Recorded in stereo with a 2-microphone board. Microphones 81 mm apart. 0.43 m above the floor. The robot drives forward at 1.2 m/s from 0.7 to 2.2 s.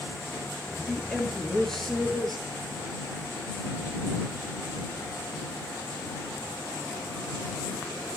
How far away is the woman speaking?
About 7 m.